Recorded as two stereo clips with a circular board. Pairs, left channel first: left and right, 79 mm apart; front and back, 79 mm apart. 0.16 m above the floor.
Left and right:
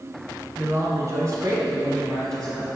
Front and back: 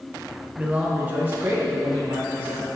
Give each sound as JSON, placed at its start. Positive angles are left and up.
{"t": 0.6, "sound": "a man speaking", "azimuth_deg": -120, "distance_m": 1.6}